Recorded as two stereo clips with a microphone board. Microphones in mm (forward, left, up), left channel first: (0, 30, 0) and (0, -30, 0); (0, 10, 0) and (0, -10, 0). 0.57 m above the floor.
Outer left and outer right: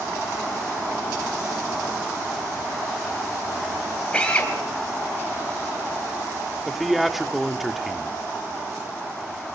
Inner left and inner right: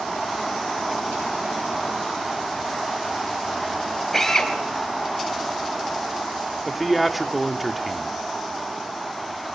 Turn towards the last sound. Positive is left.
turn(degrees=0)  # may be behind; listen again after turning